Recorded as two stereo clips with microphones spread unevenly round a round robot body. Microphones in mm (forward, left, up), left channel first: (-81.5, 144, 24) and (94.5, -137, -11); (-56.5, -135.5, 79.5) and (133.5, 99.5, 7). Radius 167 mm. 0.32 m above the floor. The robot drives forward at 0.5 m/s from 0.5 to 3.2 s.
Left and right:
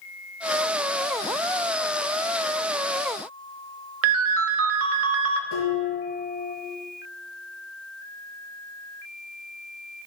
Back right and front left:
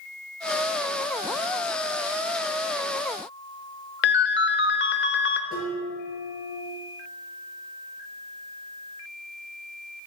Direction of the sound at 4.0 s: 70° right.